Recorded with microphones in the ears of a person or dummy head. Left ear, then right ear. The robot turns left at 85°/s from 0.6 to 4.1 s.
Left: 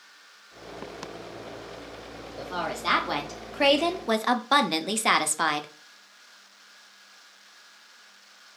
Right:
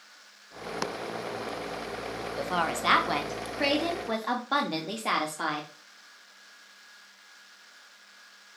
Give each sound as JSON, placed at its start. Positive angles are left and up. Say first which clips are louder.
{"t": 2.4, "sound": "a woman speaking", "louder": "right 2 dB", "azimuth_deg": -120, "distance_m": 0.6}